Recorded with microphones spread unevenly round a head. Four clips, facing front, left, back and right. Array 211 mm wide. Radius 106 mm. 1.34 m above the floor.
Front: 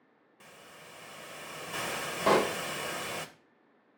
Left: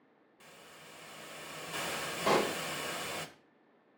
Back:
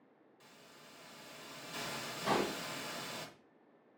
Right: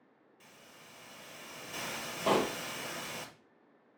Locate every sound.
0.4 s a hiss: 15° left, 1.0 m
2.3 s a pop: 5° right, 1.1 m